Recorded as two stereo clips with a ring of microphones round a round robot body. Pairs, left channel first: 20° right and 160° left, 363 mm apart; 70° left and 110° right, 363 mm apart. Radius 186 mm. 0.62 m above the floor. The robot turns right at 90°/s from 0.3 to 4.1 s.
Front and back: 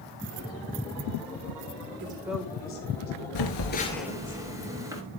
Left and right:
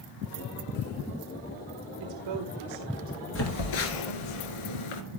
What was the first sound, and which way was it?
A woman speaking, 145° right.